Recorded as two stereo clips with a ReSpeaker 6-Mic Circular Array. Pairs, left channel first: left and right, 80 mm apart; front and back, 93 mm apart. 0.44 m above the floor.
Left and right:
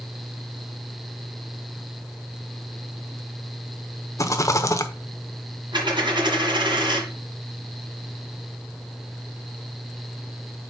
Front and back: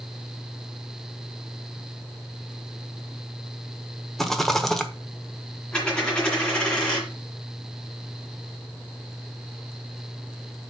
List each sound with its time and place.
4.2 s a rattle: 85° left, 0.8 m
5.7 s a dropped coin: 80° right, 2.5 m